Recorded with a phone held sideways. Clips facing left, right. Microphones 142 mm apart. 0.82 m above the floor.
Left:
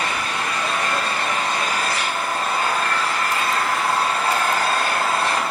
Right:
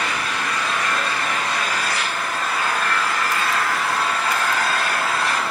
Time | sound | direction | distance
0.0 | an engine running | 35° left (ahead or behind) | 3.5 m